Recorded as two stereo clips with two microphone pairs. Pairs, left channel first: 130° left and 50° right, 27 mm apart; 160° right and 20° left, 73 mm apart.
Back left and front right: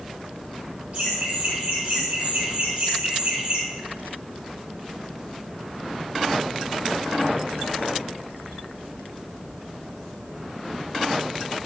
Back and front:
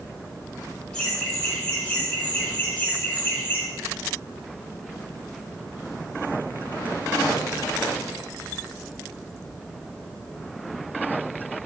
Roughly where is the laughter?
Right.